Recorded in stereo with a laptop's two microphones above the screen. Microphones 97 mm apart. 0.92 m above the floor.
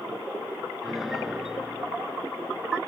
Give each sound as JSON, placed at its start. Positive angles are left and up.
{"t": 0.8, "sound": "a piano", "side_deg": -5}